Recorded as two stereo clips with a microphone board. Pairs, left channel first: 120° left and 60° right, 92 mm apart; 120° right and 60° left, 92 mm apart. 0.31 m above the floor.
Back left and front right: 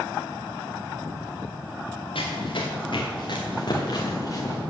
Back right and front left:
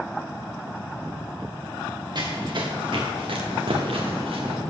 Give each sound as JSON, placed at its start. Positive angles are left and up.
{"t": 2.1, "sound": "running footsteps", "azimuth_deg": 100, "distance_m": 2.5}